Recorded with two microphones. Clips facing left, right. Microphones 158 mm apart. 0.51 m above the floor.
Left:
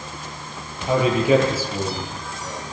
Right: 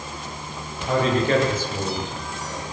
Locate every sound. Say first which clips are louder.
0.9 s a man speaking: left 3 dB; 10° left (ahead or behind), 9.5 m; by 2.6 s centre (ahead or behind), 9 m